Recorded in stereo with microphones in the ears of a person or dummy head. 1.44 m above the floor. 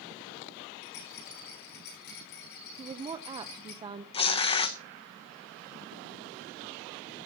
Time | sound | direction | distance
0.8 | a rattle | 60° left (ahead or behind) | 9.5 m
2.8 | a woman speaking | 25° right (ahead or behind) | 0.7 m
4.1 | tearing paper | 30° left (ahead or behind) | 0.8 m